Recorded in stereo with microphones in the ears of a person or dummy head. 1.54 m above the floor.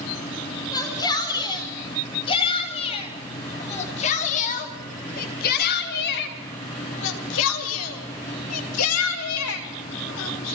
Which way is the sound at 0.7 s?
20° left (ahead or behind).